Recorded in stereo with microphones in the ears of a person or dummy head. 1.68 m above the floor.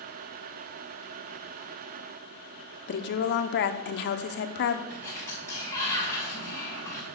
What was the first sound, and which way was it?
A woman speaking, 60° left (ahead or behind).